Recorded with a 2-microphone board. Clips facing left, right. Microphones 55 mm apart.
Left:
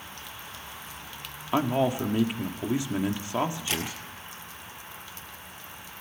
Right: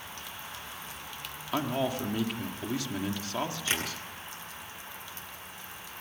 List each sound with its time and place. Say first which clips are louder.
1.5 s a man speaking: left 5 dB; 20° left (ahead or behind), 1.9 m
3.7 s tapping: even; 30° right (ahead or behind), 10 m